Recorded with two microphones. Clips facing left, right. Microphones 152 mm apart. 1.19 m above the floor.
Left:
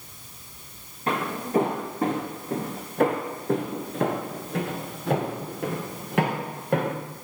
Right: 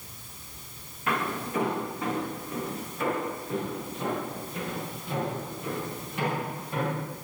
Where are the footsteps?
35° left (ahead or behind), 4 m; by 7.0 s 65° left (ahead or behind), 6 m.